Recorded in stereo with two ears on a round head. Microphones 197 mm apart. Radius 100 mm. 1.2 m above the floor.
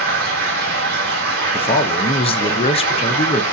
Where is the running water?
45° right (ahead or behind), 1.8 m.